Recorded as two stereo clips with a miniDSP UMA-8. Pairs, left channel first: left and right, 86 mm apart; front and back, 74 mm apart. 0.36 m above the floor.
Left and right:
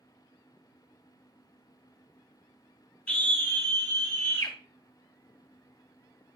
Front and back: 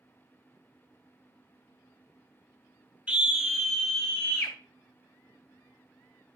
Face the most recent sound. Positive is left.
turn(degrees=65)